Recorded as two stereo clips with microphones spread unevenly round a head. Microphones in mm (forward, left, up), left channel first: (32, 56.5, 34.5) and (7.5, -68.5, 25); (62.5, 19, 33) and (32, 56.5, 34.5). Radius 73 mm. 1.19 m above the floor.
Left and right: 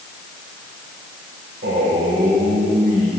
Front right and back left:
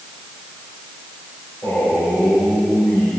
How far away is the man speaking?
About 7 m.